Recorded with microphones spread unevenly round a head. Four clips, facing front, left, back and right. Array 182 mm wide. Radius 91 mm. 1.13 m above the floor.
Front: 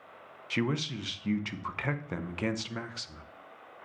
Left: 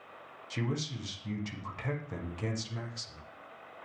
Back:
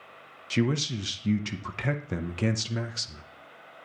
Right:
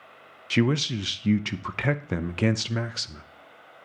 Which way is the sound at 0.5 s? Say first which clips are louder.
Right 12 dB, back 4 dB; 105° right.